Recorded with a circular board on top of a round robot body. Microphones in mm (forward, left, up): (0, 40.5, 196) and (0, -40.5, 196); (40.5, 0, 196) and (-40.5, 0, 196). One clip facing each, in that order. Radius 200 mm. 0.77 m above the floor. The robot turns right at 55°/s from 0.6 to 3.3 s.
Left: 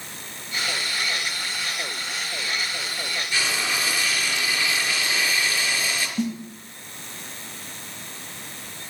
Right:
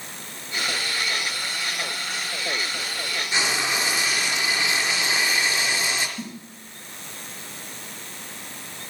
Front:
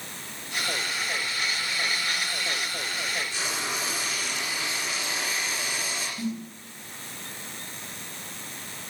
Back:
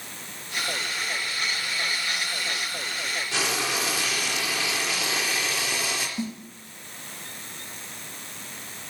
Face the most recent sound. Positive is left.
turn(degrees=110)